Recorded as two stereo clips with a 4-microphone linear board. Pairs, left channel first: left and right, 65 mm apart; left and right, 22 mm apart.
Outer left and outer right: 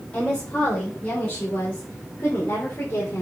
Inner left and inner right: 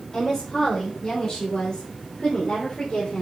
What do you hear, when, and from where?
0.1 s a woman speaking: 20° left (ahead or behind), 3.5 m; by 3.2 s 45° left (ahead or behind), 2.5 m